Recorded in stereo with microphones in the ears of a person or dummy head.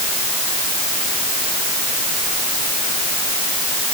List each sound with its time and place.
Only background noise.